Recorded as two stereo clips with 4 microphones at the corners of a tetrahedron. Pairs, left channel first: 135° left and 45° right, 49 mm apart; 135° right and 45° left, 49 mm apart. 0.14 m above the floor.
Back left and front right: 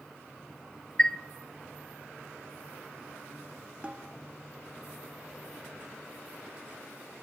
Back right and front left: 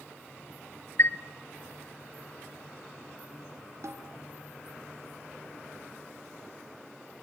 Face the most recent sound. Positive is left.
turn(degrees=20)